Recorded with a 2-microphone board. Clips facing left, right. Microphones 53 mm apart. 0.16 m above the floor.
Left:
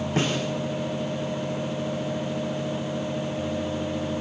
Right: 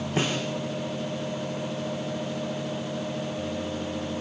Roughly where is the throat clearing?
No throat clearing in this recording.